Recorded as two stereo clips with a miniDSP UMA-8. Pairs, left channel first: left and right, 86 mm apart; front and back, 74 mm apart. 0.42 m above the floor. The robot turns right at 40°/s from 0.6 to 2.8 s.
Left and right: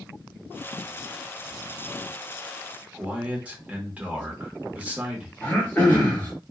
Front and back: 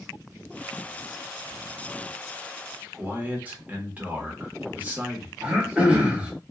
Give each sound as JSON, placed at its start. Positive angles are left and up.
{"t": 2.9, "sound": "a man speaking", "azimuth_deg": -140, "distance_m": 0.8}
{"t": 5.4, "sound": "throat clearing", "azimuth_deg": 135, "distance_m": 1.2}